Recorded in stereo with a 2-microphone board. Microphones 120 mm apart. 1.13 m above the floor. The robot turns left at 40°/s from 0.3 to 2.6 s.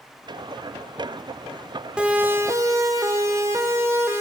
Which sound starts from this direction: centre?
A siren, at 2.0 s.